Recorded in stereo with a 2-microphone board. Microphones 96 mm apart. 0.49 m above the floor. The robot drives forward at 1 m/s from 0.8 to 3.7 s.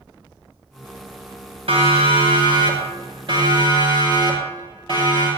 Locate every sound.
1.7 s a siren: 80° right, 4.5 m; by 5.3 s 60° right (ahead or behind), 9.5 m